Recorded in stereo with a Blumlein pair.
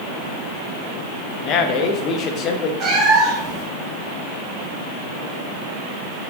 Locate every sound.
1.4 s a man speaking: 30° left, 1.1 m
2.8 s a cat meowing: 25° right, 1.9 m